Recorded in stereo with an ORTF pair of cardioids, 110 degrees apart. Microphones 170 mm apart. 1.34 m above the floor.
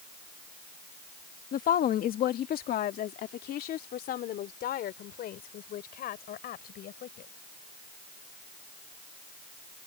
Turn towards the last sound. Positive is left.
turn(degrees=65)